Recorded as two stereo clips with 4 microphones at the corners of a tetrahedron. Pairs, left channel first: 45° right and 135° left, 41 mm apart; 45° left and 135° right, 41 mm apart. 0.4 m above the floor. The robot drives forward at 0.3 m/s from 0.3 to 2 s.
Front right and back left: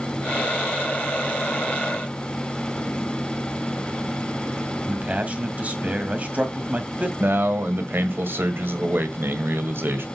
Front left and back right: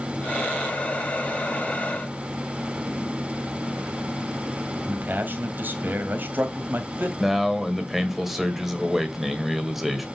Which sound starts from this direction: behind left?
A man speaking, at 7.2 s.